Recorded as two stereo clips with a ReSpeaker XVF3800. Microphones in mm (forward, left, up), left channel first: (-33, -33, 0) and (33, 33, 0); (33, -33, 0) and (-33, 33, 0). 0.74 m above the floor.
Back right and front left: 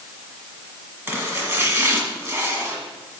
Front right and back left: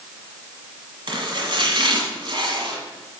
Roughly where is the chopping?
Left.